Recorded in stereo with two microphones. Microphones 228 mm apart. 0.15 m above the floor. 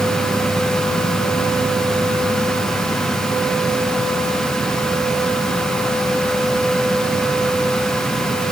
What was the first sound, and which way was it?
Only background noise.